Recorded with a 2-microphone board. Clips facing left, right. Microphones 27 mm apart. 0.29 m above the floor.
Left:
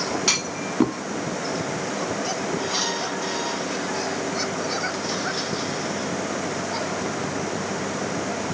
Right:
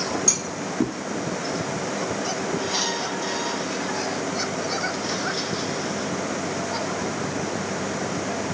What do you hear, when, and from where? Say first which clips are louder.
0.3 s a clunk: left 3 dB; 55° left (ahead or behind), 0.7 m